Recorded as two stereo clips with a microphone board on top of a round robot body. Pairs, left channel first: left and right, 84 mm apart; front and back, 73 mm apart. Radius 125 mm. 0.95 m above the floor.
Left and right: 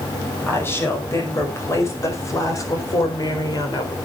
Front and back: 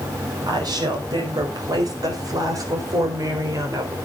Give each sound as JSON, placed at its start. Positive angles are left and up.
{"t": 0.5, "sound": "a woman speaking", "azimuth_deg": 155, "distance_m": 5.5}